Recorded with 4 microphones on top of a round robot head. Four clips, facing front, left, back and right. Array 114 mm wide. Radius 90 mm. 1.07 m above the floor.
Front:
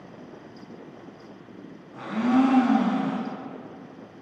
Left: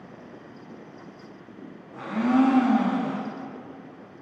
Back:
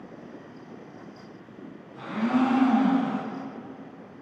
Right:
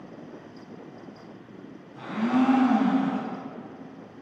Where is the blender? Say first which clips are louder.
Left 3 dB, front 3 dB; 55° left, 3 m.